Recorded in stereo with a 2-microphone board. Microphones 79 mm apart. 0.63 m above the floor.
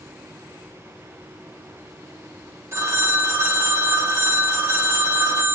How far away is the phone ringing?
About 0.7 m.